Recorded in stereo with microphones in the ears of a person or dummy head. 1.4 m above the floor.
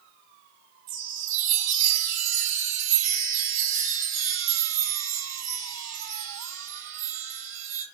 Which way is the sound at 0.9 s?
45° right (ahead or behind).